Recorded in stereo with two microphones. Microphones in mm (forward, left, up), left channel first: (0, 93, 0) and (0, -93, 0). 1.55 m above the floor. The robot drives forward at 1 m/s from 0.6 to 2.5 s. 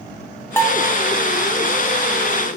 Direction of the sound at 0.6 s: 15° left (ahead or behind).